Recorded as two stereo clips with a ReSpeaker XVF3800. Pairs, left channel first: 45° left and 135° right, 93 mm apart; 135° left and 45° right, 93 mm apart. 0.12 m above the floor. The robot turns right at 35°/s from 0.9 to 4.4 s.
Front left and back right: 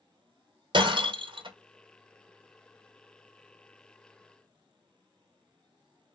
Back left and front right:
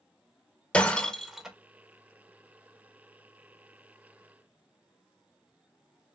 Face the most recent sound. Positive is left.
turn(degrees=-25)